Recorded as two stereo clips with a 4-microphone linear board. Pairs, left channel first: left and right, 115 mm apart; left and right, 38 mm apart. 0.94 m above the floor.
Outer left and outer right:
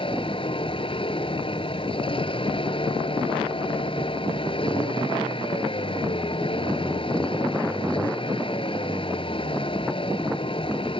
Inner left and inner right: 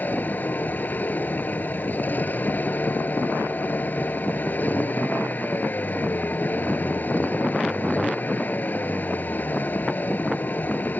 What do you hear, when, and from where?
0.0 s a vehicle: 50° left (ahead or behind)